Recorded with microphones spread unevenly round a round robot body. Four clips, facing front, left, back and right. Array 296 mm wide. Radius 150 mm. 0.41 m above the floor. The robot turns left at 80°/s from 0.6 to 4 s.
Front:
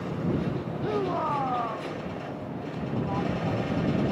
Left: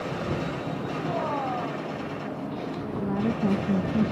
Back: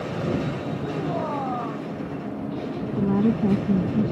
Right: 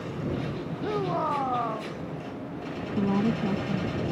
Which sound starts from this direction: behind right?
A woman speaking, at 3.0 s.